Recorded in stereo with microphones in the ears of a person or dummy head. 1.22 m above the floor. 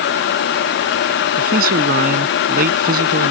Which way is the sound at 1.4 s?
55° right (ahead or behind).